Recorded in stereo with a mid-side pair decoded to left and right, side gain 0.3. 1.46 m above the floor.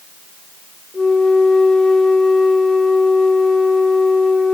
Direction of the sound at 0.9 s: 20° left.